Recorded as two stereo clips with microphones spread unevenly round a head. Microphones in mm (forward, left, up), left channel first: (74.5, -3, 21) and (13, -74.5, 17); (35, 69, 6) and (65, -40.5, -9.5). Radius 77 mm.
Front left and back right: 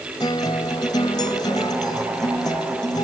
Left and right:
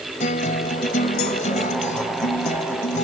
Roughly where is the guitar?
Left.